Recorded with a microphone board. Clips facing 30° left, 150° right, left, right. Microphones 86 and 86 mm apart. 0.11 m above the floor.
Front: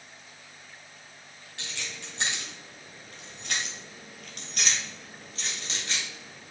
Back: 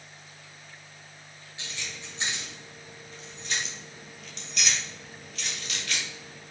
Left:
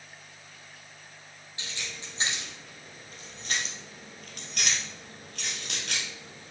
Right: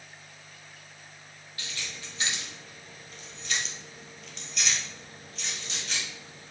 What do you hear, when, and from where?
1.6 s keys jangling: 25° left, 2.5 m; by 6.5 s 100° left, 2 m